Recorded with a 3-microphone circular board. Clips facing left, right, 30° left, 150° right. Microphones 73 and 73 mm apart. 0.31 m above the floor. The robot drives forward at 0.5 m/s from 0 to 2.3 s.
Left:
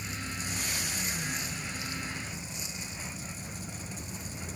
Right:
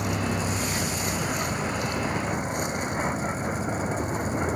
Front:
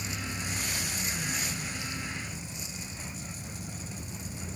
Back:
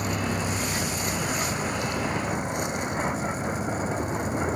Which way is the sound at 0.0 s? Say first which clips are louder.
Right 12 dB, back 10 dB; 115° right.